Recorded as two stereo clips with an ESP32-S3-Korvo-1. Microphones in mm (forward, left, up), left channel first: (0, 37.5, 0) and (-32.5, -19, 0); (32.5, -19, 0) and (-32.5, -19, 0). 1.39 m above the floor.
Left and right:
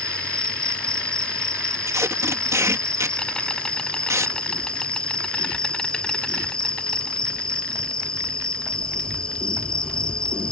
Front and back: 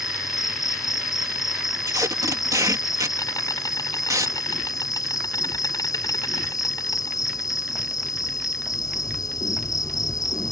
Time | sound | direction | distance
0.0 | an insect | 15° right | ?
1.9 | tape being pulled | 160° right | ?